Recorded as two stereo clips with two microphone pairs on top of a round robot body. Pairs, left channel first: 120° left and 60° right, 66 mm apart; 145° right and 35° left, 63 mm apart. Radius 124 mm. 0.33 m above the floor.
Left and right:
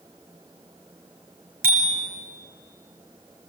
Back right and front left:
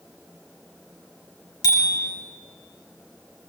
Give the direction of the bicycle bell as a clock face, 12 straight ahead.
4 o'clock.